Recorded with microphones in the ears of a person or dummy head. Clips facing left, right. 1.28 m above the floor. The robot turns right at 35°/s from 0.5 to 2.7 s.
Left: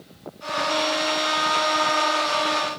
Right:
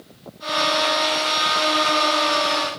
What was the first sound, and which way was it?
Only background noise.